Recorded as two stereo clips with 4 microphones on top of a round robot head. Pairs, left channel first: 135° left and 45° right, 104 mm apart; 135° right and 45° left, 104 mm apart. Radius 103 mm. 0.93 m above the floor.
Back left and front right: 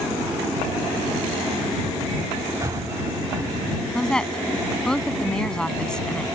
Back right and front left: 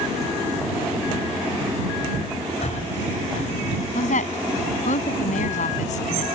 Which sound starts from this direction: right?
Breathing, at 2.6 s.